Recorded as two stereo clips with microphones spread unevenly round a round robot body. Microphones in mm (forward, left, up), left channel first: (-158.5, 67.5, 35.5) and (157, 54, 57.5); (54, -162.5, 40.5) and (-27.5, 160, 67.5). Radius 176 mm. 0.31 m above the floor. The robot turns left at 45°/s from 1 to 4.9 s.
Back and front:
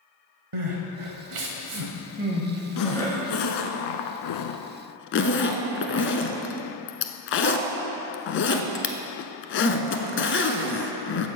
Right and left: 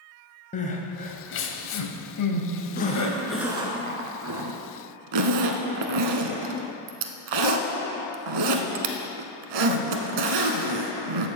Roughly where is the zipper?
Behind right.